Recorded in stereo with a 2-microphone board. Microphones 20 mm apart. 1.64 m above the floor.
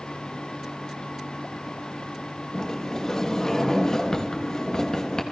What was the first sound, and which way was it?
A sliding door, 35° left (ahead or behind).